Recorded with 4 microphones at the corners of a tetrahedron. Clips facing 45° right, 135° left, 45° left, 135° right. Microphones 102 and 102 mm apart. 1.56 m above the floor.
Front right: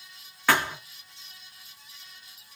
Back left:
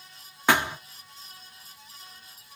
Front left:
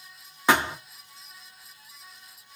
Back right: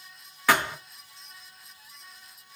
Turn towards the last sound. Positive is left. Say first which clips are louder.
# back left 1 dB, front left 1 dB
turn(degrees=90)